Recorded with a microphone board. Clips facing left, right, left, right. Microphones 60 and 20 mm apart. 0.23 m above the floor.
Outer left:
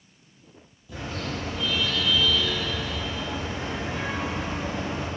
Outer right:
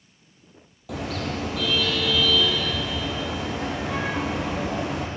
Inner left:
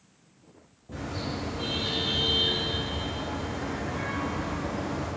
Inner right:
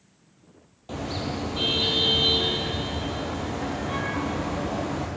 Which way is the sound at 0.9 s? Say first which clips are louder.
Outer right 4 dB, inner right 4 dB; 70° right (ahead or behind).